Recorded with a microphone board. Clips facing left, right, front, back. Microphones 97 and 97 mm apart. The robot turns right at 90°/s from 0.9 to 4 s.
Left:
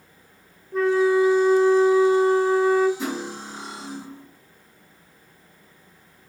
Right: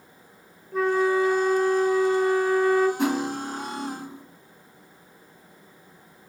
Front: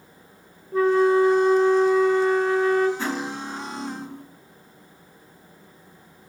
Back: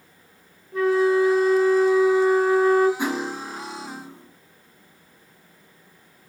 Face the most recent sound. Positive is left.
turn(degrees=-20)